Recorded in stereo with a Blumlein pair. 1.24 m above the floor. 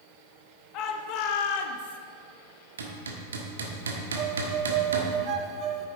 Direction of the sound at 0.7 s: 35° left.